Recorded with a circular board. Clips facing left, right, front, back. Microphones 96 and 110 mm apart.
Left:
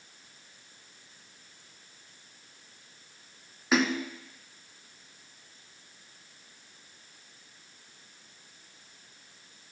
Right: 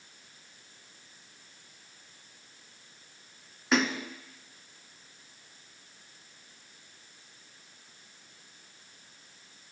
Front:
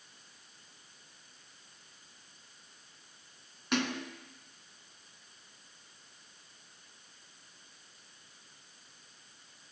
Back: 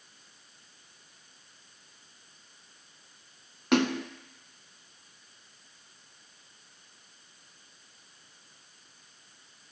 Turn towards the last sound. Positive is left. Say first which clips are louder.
# left 1 dB, back 8 dB
turn(degrees=180)